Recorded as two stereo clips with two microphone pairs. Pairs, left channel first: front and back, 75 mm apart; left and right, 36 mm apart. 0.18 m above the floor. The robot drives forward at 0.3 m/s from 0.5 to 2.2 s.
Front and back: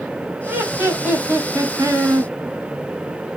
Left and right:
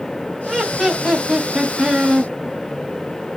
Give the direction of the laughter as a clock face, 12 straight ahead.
6 o'clock.